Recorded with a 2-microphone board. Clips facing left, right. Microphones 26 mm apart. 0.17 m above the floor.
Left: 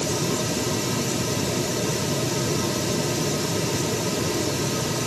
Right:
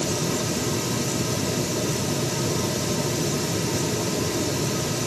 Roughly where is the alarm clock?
I don't hear an alarm clock.